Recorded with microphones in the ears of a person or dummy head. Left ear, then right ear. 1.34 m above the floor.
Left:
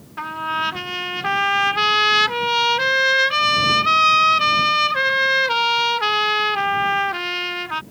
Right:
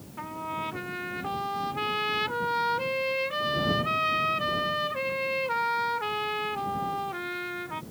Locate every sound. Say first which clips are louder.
0.2 s a trumpet: left 11 dB; 65° left (ahead or behind)